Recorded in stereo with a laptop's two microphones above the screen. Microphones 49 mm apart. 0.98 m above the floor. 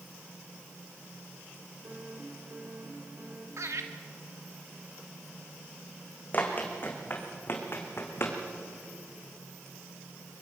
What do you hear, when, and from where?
1.8 s a piano: 40° right (ahead or behind), 3.5 m
3.6 s laughter: 75° right (ahead or behind), 2 m
6.3 s running footsteps: 35° left (ahead or behind), 3 m; by 8.4 s 55° left (ahead or behind), 3.5 m